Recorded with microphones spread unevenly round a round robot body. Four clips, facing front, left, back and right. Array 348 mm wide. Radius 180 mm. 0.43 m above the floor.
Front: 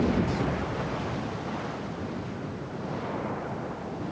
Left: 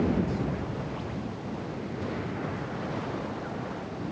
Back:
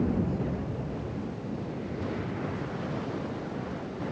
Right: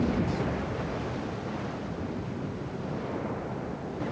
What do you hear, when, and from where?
Only background noise.